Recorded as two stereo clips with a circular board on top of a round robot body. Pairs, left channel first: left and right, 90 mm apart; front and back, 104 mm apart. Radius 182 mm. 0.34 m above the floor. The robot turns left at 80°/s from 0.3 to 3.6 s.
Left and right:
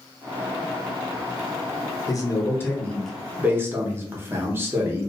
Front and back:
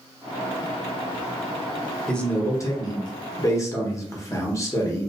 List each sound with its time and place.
2.1 s a man speaking: 85° left, 1.1 m; by 5.1 s 40° right, 1.1 m